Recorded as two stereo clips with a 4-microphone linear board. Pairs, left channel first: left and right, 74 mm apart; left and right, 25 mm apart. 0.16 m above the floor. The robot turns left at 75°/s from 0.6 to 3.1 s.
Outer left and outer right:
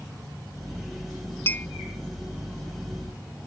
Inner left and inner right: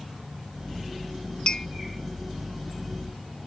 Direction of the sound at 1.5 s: 35° left (ahead or behind).